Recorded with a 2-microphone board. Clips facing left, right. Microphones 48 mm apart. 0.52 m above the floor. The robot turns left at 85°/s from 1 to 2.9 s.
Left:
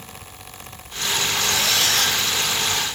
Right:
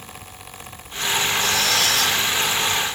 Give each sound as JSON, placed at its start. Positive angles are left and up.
{"t": 1.4, "sound": "a squeak", "azimuth_deg": 105, "distance_m": 8.5}